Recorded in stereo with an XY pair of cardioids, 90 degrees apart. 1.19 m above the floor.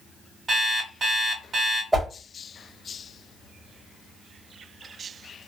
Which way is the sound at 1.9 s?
15° right.